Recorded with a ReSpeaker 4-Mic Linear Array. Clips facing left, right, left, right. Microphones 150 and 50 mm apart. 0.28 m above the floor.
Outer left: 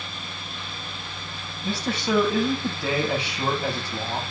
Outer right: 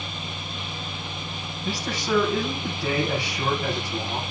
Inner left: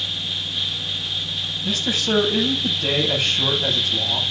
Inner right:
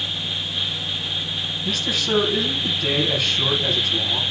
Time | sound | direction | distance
1.6 | a man speaking | 20° left (ahead or behind) | 8 m